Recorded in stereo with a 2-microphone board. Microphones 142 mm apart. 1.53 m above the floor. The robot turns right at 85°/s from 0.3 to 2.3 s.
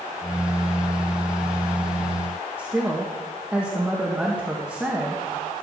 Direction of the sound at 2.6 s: 10° right (ahead or behind).